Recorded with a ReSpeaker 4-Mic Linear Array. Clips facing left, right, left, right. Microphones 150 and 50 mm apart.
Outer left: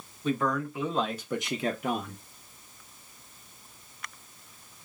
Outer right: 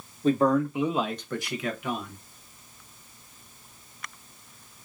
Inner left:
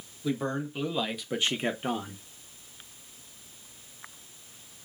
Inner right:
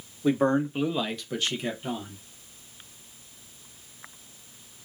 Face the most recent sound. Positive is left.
turn(degrees=55)  # may be behind; listen again after turning